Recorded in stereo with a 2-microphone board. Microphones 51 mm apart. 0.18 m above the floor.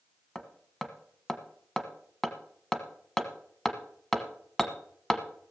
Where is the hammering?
10° left (ahead or behind), 1.1 m.